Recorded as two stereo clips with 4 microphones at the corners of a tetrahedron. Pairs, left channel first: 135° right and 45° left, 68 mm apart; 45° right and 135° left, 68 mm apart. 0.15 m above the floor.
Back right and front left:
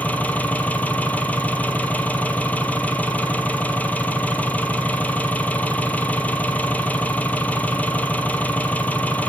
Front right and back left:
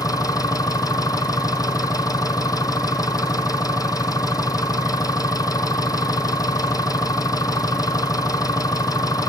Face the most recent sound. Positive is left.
turn(degrees=-70)